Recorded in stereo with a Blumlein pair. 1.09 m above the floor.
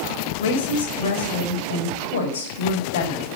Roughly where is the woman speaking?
Ahead left.